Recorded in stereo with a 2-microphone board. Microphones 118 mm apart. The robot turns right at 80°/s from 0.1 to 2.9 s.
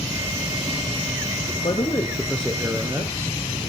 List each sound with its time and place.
1.6 s a man speaking: 110° left, 2.5 m; by 3.4 s 150° right, 2.5 m